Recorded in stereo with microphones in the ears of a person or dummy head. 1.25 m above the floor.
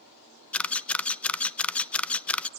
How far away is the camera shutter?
About 0.7 m.